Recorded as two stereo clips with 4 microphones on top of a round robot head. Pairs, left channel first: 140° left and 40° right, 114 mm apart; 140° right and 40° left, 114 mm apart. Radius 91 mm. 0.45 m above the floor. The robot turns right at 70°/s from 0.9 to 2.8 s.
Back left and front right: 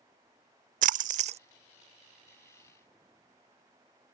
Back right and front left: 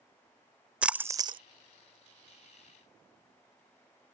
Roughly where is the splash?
Ahead right.